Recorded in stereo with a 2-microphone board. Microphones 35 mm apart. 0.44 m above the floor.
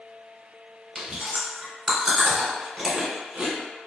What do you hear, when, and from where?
0.9 s chewing: 20° right (ahead or behind), 1.3 m